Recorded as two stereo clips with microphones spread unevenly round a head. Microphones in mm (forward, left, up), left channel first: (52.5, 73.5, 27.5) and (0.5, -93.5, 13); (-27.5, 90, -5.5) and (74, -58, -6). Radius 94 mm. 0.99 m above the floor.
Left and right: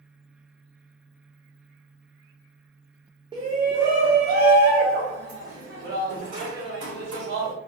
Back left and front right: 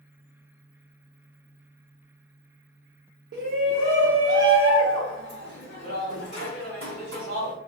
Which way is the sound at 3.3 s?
45° right.